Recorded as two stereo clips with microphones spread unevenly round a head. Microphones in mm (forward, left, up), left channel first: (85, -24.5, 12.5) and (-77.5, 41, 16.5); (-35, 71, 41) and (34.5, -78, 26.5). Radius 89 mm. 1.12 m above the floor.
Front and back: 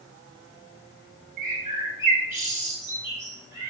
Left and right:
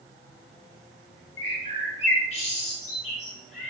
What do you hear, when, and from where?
1.4 s a bird: 95° left, 0.9 m